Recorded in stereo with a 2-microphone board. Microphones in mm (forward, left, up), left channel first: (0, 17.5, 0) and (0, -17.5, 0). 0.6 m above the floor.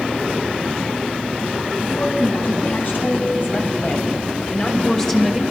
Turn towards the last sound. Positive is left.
turn(degrees=0)  # may be behind; listen again after turning